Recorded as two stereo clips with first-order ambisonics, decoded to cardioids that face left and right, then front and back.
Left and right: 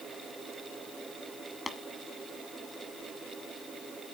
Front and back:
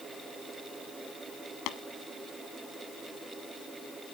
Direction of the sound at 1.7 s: 10° left.